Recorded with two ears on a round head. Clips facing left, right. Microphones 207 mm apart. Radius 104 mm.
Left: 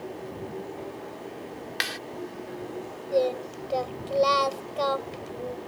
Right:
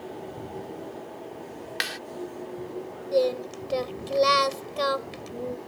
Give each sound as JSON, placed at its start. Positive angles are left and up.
{"t": 1.8, "sound": "a clap", "side_deg": -5}
{"t": 3.1, "sound": "singing", "side_deg": -30}